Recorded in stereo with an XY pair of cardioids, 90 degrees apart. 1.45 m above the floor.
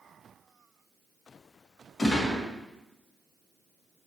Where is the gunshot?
45° left, 1.9 m.